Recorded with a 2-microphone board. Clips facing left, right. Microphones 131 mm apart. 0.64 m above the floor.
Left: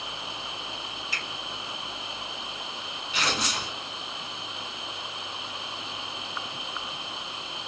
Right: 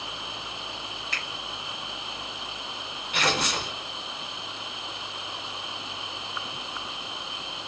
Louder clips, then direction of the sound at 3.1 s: Right 3 dB; 65° right (ahead or behind).